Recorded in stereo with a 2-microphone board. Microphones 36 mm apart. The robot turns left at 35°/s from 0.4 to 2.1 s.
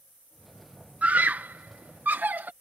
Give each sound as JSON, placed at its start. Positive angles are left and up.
{"t": 1.0, "sound": "a scream", "side_deg": -40}